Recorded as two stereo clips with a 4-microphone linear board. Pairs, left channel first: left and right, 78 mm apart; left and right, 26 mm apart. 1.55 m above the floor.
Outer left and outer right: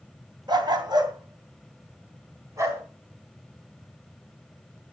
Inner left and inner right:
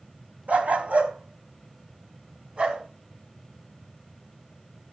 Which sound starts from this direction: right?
A dog barking, at 0.5 s.